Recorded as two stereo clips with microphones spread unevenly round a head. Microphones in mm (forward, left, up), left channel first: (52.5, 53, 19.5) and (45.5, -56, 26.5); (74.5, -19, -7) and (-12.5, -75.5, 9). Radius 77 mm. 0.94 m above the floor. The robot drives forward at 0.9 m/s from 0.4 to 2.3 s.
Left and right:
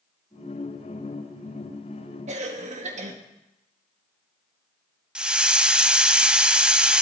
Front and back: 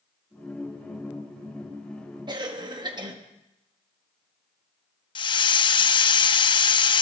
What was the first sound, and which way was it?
A cough, 100° right.